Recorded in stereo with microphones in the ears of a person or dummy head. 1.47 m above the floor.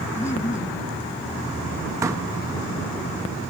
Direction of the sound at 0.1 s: 15° left (ahead or behind).